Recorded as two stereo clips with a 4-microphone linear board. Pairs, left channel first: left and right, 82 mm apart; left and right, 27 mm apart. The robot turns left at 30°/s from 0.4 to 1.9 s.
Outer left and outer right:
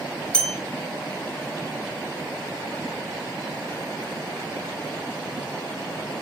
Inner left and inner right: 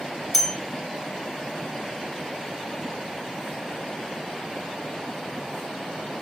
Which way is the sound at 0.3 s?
10° left (ahead or behind).